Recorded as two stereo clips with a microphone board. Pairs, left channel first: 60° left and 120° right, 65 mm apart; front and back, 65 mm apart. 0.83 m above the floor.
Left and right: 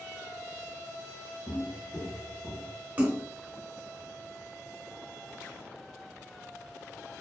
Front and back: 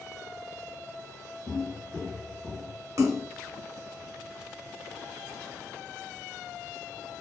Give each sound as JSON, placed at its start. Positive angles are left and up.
{"t": 1.5, "sound": "footsteps", "azimuth_deg": 115, "distance_m": 1.0}
{"t": 3.0, "sound": "a splash", "azimuth_deg": 180, "distance_m": 0.7}